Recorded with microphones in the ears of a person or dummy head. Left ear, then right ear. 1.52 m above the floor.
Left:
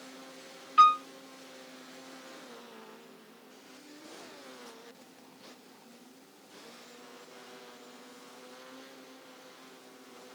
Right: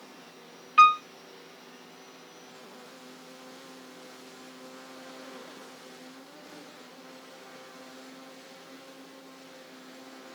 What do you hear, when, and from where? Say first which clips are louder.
0.8 s a piano: right 3 dB; 10° right (ahead or behind), 0.7 m